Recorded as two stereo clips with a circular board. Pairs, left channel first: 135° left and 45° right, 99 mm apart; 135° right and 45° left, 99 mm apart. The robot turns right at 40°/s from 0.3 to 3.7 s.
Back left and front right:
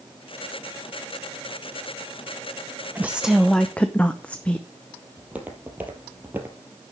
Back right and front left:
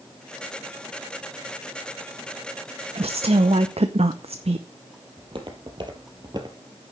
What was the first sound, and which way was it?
A woman speaking, 25° left.